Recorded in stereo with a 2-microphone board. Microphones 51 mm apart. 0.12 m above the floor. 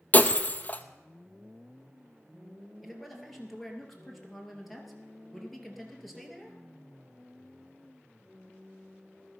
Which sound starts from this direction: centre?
A man speaking, at 2.8 s.